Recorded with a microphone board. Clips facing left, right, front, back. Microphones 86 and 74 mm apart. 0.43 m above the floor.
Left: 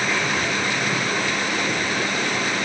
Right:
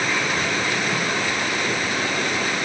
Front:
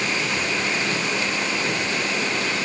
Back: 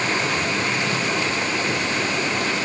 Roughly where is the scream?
I don't hear a scream.